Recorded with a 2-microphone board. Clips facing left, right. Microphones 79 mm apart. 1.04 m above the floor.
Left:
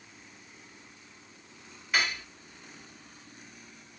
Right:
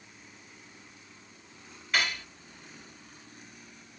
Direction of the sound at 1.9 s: 5° left (ahead or behind).